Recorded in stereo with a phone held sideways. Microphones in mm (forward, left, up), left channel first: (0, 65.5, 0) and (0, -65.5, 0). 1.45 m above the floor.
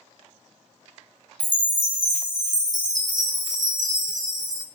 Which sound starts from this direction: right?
A chime, at 1.4 s.